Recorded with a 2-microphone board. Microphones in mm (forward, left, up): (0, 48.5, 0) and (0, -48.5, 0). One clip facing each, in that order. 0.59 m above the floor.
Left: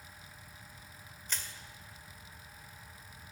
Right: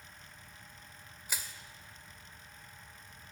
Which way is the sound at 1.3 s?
10° right (ahead or behind).